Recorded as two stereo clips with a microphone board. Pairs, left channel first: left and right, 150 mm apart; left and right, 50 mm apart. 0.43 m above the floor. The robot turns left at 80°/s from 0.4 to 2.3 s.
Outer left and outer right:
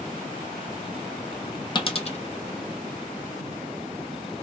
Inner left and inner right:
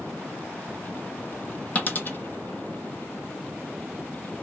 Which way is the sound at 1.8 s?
30° left (ahead or behind).